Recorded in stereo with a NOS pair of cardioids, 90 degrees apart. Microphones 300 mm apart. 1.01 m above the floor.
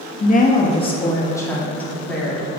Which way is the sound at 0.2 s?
30° left.